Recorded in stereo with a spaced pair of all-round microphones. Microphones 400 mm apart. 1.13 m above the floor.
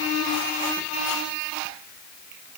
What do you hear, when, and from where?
Only background noise.